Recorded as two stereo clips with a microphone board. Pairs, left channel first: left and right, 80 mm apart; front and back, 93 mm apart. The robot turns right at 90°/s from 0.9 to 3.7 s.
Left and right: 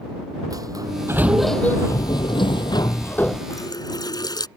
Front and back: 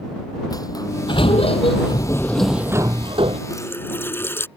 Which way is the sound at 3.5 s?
45° left.